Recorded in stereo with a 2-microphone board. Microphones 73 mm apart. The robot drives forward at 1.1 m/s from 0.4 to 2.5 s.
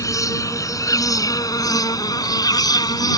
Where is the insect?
50° left (ahead or behind); by 3.2 s 60° left (ahead or behind).